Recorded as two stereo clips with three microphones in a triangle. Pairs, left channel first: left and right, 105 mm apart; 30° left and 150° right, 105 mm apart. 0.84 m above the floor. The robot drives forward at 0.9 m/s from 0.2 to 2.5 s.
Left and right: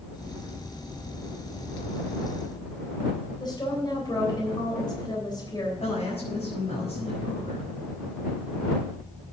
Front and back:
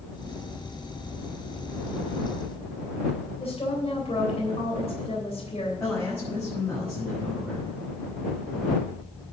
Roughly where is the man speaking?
Left.